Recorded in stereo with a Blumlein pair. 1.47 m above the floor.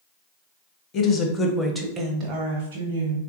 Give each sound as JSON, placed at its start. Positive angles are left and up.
{"t": 0.9, "sound": "a woman speaking", "azimuth_deg": 30, "distance_m": 0.9}